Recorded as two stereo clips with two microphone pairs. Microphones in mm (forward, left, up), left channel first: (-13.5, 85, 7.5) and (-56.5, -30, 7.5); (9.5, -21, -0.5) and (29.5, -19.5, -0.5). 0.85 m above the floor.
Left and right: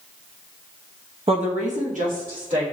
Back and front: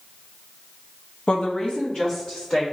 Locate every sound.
1.3 s a woman speaking: 145° right, 0.6 m; by 2.6 s 120° right, 2.5 m